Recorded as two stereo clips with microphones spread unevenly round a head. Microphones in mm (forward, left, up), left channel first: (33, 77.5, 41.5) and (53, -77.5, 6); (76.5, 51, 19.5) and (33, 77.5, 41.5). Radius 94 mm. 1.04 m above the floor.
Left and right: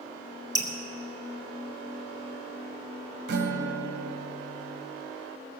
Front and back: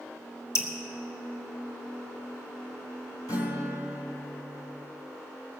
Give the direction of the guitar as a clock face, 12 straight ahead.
3 o'clock.